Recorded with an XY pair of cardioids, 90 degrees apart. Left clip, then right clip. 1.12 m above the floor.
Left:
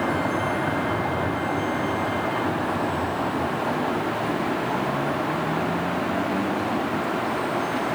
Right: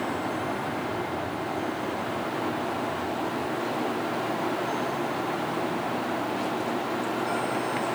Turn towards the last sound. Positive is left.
turn(degrees=80)